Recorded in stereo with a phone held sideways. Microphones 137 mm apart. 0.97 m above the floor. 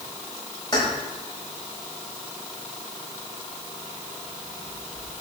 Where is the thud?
No thud in this recording.